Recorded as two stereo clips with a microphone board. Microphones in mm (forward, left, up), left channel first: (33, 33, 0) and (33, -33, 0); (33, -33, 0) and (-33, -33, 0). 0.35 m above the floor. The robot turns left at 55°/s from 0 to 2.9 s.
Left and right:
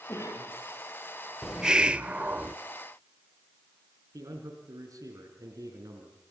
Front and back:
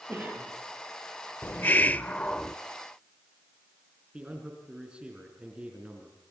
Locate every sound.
0.1 s a cough: 130° left, 9 m; by 0.5 s 105° left, 9 m
1.4 s a hiss: 10° right, 0.5 m; by 2.5 s 70° right, 0.5 m
4.1 s a man speaking: 105° right, 4.5 m